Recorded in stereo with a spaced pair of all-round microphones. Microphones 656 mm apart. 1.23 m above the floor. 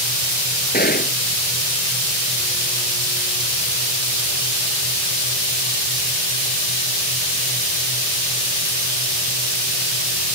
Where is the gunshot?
15° left (ahead or behind).